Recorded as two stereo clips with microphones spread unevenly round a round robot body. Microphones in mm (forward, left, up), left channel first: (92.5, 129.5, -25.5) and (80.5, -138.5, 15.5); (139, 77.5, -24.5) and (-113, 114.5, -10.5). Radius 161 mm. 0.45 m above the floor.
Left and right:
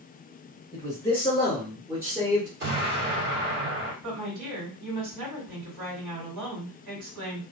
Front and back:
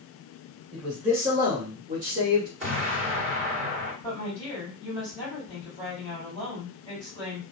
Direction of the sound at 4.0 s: 100° right.